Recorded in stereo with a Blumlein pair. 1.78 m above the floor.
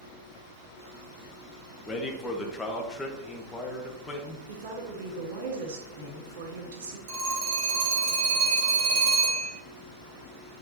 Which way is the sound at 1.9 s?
10° left.